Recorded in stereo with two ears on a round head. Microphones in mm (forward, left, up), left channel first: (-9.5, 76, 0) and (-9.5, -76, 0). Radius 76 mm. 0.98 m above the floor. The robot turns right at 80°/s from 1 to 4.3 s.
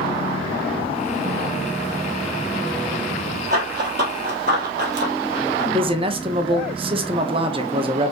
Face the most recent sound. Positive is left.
turn(degrees=-30)  # may be behind; listen again after turning